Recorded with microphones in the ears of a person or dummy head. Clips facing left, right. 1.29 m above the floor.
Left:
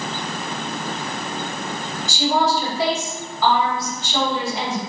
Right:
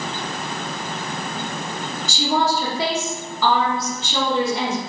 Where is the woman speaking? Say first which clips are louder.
Left 1 dB; 85° right, 1.2 m.